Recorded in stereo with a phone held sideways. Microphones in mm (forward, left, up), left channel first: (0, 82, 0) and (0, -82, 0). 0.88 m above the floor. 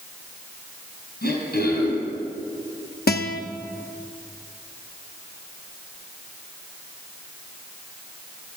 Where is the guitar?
75° left (ahead or behind), 0.7 m.